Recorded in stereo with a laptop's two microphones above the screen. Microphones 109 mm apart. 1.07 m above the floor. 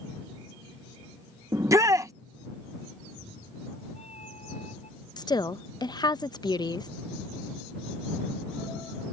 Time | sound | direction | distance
1.5 | a shout | 30° right (ahead or behind) | ?
3.0 | a cat meowing | 85° left | ?
5.2 | a woman speaking | 40° left (ahead or behind) | ?